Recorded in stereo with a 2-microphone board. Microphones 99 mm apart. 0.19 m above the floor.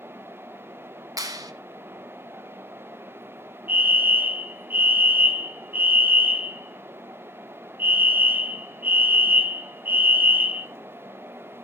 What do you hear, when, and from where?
1.2 s a clap: 40° right (ahead or behind), 1.3 m
3.7 s a fire alarm: 20° right (ahead or behind), 2.0 m